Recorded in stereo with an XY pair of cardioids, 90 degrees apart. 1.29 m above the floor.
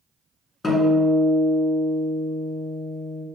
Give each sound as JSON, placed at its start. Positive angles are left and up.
{"t": 0.6, "sound": "a guitar", "azimuth_deg": 35, "distance_m": 2.0}